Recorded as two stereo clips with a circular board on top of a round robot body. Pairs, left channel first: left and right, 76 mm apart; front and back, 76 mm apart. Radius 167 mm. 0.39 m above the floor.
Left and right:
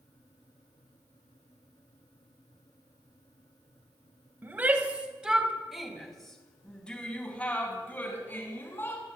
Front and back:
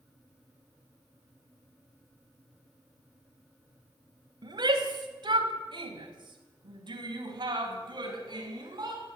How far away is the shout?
About 3.5 m.